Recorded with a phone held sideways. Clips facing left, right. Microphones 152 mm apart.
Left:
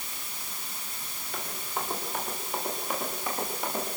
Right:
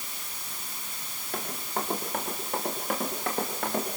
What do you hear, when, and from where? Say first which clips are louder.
1.3 s running footsteps: right 3 dB; 50° right (ahead or behind), 9 m; by 4.0 s 75° right (ahead or behind), 9.5 m